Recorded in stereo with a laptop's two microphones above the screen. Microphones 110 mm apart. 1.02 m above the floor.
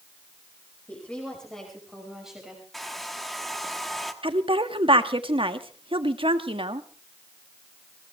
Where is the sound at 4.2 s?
55° right (ahead or behind), 1.7 m.